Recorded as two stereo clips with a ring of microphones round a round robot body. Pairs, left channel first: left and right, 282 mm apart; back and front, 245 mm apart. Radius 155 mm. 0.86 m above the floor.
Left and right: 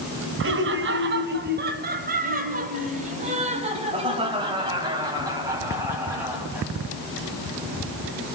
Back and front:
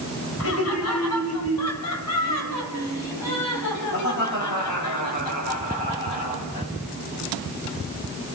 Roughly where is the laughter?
Behind right.